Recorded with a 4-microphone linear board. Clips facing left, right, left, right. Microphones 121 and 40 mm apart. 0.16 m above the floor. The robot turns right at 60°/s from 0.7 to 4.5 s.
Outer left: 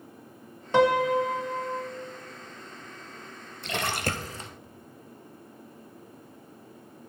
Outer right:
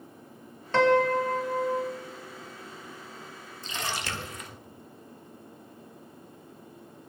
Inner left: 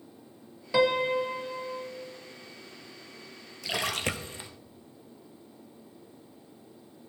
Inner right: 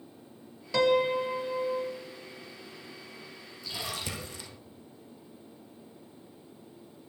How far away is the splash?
About 0.9 m.